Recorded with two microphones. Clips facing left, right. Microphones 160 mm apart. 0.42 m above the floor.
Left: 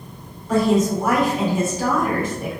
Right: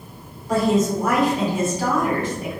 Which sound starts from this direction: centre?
A woman speaking, at 0.5 s.